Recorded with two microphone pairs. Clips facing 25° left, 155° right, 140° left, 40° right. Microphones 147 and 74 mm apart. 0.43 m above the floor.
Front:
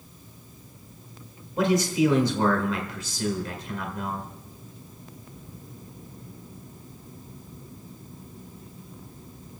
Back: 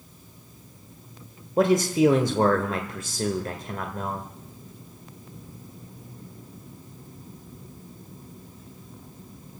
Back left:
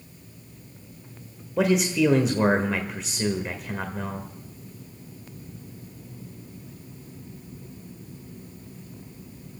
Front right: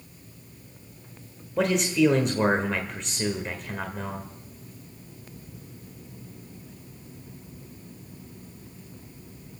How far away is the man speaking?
About 1.3 m.